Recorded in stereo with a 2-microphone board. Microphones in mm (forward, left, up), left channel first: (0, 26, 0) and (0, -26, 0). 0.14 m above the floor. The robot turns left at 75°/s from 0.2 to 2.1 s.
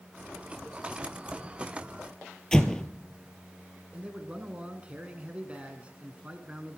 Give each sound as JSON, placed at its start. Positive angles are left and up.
{"t": 2.5, "sound": "an explosion", "side_deg": 15, "distance_m": 1.1}
{"t": 3.9, "sound": "a man speaking", "side_deg": -25, "distance_m": 1.3}